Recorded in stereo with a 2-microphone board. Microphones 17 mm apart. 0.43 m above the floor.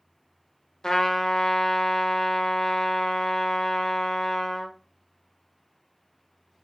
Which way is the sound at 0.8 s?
40° left (ahead or behind).